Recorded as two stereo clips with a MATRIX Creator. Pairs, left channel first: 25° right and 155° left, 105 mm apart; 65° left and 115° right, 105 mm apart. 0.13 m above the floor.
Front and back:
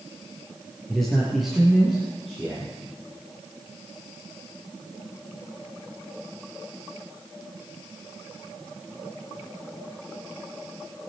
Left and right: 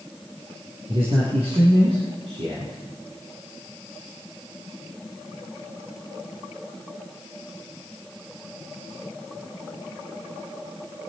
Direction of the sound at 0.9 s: 110° right.